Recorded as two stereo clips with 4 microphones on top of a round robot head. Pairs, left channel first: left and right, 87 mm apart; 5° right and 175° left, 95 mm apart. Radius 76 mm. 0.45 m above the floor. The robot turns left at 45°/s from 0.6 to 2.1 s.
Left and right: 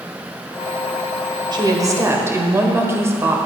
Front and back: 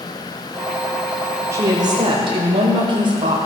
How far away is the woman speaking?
About 1.6 m.